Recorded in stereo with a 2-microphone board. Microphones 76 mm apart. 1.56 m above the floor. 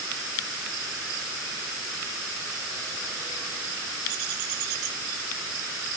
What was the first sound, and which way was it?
Only background noise.